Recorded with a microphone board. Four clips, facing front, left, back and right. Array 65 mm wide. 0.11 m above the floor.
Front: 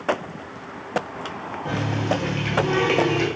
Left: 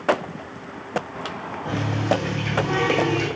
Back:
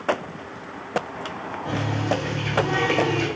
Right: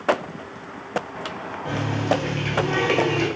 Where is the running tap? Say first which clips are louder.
Even, front 1 dB; 40° right, 1.6 m.